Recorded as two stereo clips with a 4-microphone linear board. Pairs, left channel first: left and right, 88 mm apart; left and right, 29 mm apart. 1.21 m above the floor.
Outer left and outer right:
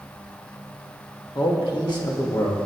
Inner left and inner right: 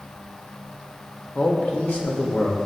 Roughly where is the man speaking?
Left.